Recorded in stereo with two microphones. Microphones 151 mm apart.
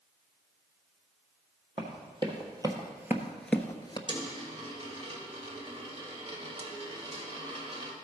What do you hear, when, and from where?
1.8 s running footsteps: 35° right (ahead or behind), 2 m; by 4.0 s 30° left (ahead or behind), 0.9 m
4.1 s a dropped coin: 40° right (ahead or behind), 1.6 m